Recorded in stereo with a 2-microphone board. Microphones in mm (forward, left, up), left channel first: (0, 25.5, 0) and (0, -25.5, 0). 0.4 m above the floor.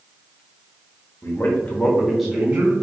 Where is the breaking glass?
No breaking glass in this recording.